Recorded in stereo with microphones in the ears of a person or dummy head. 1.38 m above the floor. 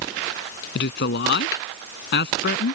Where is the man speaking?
65° left (ahead or behind).